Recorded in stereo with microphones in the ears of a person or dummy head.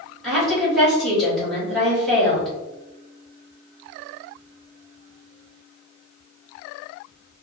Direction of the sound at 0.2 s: Centre (ahead or behind).